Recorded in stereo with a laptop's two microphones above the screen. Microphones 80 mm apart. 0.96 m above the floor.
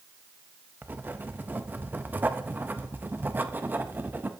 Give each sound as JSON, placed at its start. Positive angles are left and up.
{"t": 0.8, "sound": "writing", "side_deg": -25, "distance_m": 0.5}